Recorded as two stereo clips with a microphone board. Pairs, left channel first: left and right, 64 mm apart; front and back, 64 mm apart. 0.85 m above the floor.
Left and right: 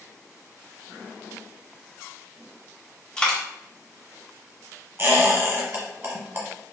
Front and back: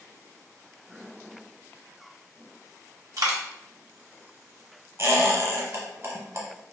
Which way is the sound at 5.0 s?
140° right.